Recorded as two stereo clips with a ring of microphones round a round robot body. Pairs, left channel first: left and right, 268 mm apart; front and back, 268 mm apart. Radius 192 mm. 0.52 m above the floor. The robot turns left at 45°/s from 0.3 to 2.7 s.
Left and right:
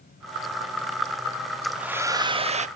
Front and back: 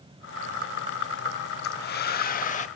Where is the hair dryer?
Straight ahead, 0.9 m; by 2.7 s 45° right, 0.9 m.